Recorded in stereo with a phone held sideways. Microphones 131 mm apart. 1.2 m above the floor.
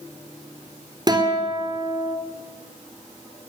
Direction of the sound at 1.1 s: 30° right (ahead or behind).